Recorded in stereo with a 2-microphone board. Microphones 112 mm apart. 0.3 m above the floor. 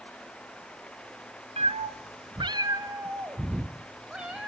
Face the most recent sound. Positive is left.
turn(degrees=-5)  # may be behind; listen again after turning